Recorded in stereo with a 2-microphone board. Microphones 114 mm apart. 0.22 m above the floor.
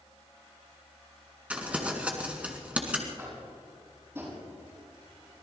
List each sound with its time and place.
1.5 s crumpling: 15° right (ahead or behind), 2.5 m
3.2 s tapping: 20° right (ahead or behind), 6 m